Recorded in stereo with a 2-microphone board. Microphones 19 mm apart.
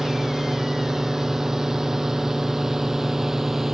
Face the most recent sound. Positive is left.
turn(degrees=-15)  # may be behind; listen again after turning